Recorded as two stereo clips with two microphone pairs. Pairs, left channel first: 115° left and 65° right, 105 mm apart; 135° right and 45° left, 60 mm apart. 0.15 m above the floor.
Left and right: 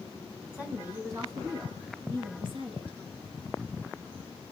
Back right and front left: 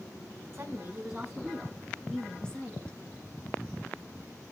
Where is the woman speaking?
5° left, 1.5 m; by 3.0 s 65° right, 2.5 m.